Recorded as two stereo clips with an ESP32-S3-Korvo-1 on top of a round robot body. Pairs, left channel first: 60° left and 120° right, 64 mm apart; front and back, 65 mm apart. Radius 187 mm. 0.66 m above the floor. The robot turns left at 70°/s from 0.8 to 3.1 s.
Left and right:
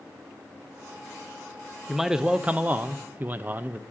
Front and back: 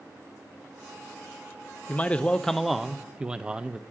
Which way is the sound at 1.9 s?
35° right.